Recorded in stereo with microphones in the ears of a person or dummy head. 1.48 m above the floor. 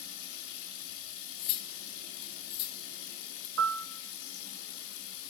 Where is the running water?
65° left (ahead or behind), 2.5 m.